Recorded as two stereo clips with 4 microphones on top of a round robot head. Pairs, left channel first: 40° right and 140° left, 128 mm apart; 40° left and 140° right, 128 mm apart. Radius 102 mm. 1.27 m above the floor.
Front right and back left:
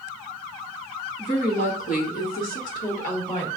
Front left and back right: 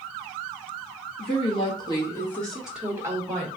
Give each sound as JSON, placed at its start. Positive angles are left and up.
{"t": 1.2, "sound": "a woman speaking", "azimuth_deg": 0, "distance_m": 1.6}